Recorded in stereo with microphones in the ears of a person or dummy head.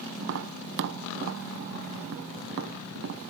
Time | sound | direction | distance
0.2 | tapping | 50° right (ahead or behind) | 0.7 m